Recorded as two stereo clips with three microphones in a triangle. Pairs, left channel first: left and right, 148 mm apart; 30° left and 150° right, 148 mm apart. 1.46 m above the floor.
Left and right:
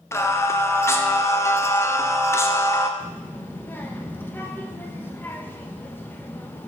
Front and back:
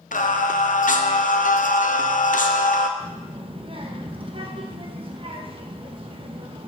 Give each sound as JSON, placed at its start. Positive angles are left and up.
{"t": 0.1, "sound": "singing", "azimuth_deg": 20, "distance_m": 0.6}
{"t": 3.0, "sound": "a child speaking", "azimuth_deg": 165, "distance_m": 1.1}